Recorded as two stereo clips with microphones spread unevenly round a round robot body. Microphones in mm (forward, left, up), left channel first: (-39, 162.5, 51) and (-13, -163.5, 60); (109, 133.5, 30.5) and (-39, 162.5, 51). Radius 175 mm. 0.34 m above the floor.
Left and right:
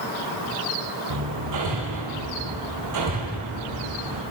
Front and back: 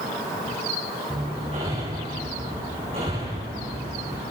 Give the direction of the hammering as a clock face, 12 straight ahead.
4 o'clock.